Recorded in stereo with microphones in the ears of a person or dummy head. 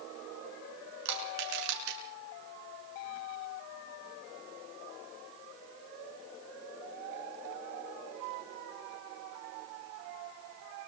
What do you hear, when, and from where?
1.1 s crushing: 80° right, 9.5 m